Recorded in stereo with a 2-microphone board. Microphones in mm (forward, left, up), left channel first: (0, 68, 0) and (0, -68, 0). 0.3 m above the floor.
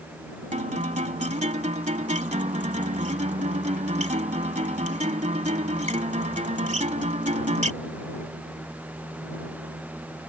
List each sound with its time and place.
0.5 s a guitar: 60° right (ahead or behind)